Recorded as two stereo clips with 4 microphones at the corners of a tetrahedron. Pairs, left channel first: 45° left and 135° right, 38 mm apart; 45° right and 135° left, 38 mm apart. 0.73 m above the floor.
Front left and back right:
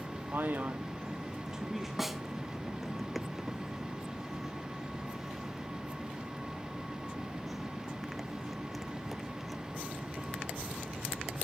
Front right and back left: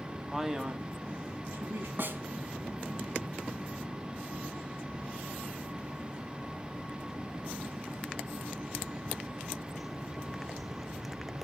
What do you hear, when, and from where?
0.3 s a man speaking: 140° right, 1.4 m; by 1.9 s 135° left, 1.6 m
2.0 s a snare drum: 140° left, 0.9 m